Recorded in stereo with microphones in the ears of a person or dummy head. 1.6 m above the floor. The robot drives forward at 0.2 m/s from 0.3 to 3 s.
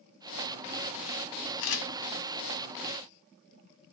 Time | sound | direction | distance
1.6 | a camera shutter | 65° left (ahead or behind) | 0.6 m